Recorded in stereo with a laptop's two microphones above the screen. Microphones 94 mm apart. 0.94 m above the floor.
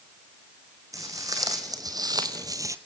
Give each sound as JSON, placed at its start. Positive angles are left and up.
{"t": 0.9, "sound": "footsteps", "side_deg": -35, "distance_m": 3.0}